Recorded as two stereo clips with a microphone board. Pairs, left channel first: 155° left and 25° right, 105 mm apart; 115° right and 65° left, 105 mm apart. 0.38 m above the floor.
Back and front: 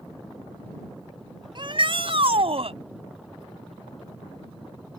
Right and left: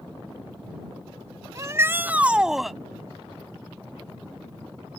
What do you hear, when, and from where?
1.6 s a shout: 10° left; by 2.8 s 25° right